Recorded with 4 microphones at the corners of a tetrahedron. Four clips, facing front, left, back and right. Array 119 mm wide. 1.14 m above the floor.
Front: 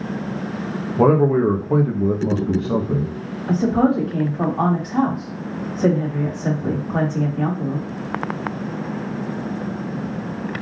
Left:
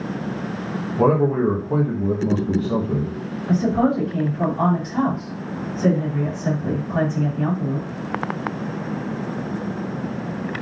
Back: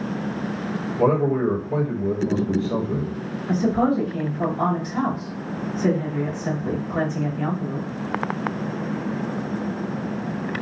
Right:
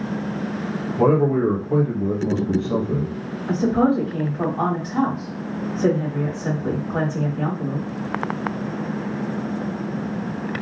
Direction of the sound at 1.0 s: 10° left.